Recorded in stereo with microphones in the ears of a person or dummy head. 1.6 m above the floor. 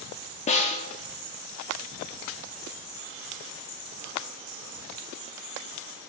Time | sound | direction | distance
0.5 | a snare drum | 35° left (ahead or behind) | 0.6 m